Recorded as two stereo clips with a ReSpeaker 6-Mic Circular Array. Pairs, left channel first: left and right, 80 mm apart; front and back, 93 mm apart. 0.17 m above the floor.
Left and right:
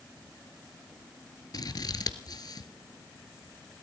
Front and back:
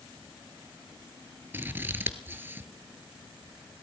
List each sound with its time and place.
1.5 s scissors: 115° left, 1.0 m